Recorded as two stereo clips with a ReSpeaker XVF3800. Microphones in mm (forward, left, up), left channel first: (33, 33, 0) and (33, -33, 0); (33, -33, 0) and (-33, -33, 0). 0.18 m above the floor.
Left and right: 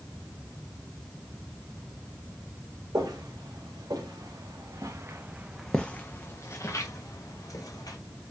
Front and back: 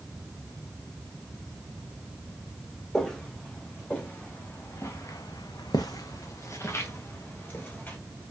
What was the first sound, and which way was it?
Footsteps, 80° right.